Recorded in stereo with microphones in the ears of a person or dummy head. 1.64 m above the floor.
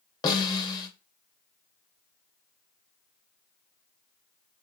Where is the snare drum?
20° left (ahead or behind), 0.8 m.